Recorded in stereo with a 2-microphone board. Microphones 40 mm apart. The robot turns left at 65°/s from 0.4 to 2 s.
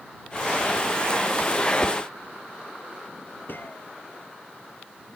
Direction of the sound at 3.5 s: 60° left (ahead or behind).